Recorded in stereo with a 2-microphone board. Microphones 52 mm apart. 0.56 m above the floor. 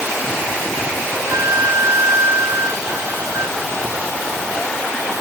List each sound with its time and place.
1.1 s a flute: 75° right (ahead or behind)